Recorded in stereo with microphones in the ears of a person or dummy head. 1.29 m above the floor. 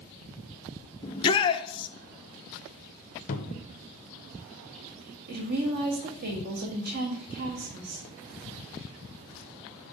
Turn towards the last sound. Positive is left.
turn(degrees=-50)  # may be behind; listen again after turning